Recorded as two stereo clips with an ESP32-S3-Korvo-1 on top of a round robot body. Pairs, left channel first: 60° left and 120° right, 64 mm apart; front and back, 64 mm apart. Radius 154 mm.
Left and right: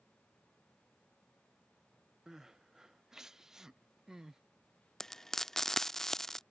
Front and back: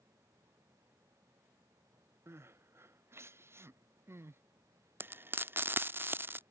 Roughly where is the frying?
Behind left.